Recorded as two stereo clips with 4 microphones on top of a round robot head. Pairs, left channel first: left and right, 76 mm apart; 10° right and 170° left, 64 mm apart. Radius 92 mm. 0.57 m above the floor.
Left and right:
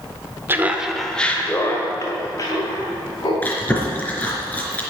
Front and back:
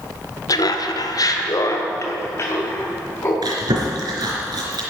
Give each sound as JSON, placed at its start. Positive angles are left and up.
{"t": 0.5, "sound": "laughter", "azimuth_deg": -30, "distance_m": 1.5}
{"t": 3.4, "sound": "chewing", "azimuth_deg": 160, "distance_m": 3.5}